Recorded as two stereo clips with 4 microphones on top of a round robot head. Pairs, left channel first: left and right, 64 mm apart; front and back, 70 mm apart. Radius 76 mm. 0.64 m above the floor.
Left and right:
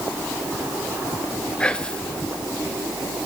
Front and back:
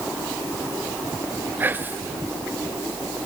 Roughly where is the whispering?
Behind left.